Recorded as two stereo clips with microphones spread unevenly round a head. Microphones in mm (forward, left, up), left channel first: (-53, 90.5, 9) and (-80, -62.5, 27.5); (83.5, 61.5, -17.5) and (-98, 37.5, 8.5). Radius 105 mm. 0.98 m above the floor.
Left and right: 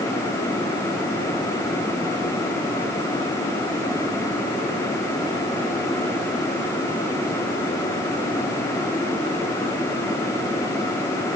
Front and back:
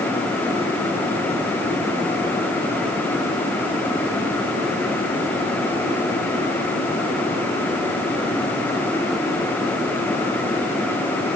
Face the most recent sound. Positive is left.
No sound to turn to.